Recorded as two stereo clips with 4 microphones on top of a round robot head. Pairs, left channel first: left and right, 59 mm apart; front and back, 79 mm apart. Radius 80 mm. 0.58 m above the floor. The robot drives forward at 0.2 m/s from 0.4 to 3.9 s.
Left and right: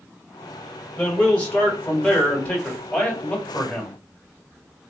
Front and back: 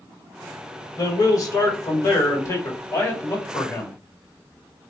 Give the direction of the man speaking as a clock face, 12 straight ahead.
11 o'clock.